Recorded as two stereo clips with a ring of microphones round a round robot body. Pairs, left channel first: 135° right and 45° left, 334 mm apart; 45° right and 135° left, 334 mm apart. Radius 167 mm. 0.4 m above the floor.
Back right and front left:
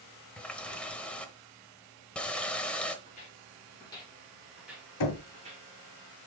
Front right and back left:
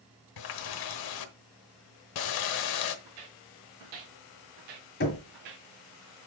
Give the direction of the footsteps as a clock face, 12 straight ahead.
7 o'clock.